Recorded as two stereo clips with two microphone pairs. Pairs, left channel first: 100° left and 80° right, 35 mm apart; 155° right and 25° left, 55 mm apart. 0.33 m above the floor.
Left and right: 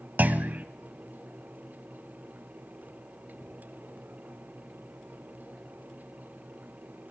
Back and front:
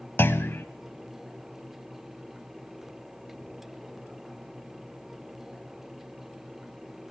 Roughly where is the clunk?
Right.